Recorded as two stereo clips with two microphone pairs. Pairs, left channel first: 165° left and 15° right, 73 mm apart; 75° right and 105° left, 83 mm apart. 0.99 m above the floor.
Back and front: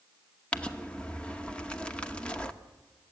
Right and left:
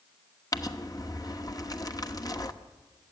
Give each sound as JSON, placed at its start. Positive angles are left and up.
{"t": 0.5, "sound": "crumpling", "azimuth_deg": -120, "distance_m": 1.0}